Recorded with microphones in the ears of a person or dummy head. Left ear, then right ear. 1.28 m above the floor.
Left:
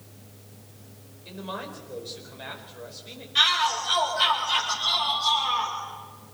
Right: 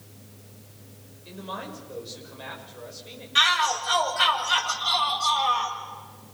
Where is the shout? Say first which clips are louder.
Right 1 dB; 30° right (ahead or behind), 8 m.